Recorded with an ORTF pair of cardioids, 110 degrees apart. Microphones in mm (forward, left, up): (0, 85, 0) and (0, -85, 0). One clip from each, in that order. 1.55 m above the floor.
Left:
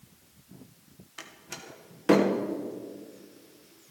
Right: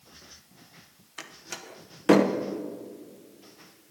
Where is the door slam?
15° right, 1.0 m.